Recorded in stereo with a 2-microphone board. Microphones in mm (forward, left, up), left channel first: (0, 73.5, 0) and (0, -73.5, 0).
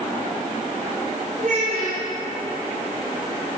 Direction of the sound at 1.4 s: 75° right (ahead or behind).